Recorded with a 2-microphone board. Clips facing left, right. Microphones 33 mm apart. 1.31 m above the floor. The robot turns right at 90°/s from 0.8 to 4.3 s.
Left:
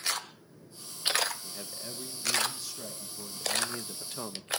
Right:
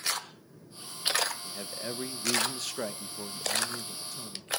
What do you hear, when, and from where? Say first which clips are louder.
1.4 s a man speaking: right 4 dB; 175° left, 1.4 m; by 4.5 s 70° left, 1.4 m